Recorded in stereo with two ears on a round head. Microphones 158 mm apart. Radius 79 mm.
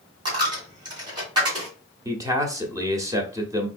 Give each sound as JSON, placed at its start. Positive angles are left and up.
{"t": 0.2, "sound": "a dropped coin", "side_deg": -25, "distance_m": 2.5}
{"t": 2.0, "sound": "a man speaking", "side_deg": -20, "distance_m": 0.9}